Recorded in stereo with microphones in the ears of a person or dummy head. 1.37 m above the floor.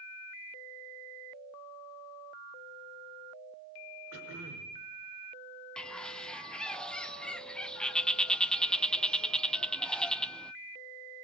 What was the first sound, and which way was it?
Throat clearing, 75° right (ahead or behind).